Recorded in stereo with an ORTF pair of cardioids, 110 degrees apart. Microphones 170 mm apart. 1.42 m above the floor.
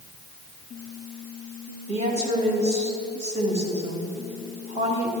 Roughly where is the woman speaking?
Ahead right.